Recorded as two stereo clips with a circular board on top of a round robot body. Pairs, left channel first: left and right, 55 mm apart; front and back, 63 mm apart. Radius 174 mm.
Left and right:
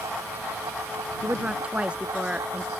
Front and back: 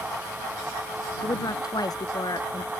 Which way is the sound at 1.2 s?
20° right.